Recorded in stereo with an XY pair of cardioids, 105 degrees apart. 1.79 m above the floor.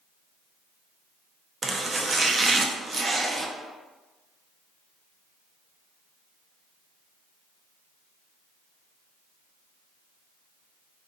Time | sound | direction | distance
1.6 | chopping | 35° right | 0.6 m